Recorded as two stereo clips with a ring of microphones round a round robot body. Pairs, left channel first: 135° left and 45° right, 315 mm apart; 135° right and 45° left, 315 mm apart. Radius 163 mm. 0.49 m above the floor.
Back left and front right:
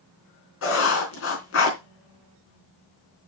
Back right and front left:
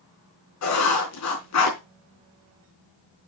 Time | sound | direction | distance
0.6 | writing | 175° right | 4 m